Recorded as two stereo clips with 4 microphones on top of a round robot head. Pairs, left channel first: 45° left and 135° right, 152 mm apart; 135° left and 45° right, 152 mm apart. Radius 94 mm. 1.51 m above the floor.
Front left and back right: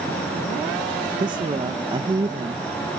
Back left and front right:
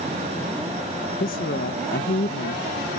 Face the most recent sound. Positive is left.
turn(degrees=165)